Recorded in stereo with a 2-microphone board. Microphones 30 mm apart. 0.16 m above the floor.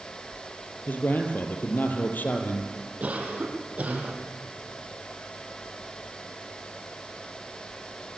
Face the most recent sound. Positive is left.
turn(degrees=-45)  # may be behind; listen again after turning